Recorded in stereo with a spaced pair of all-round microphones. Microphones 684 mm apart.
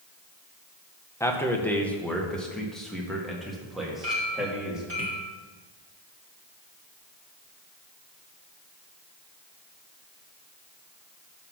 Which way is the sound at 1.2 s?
5° left (ahead or behind).